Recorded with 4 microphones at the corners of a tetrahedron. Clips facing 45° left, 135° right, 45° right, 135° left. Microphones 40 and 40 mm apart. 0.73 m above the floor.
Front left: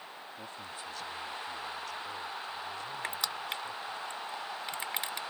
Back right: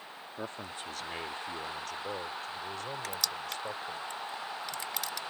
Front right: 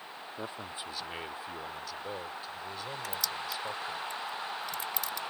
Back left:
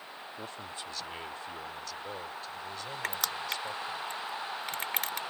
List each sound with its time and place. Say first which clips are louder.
0.4 s a man speaking: back right 5 dB, front right 3 dB; 115° right; by 4.0 s 130° right
3.0 s crushing: front left 3 dB, back left 4 dB; 100° left